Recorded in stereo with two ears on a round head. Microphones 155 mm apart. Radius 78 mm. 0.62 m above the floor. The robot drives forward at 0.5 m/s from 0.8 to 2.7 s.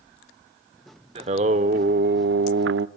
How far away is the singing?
About 0.9 m.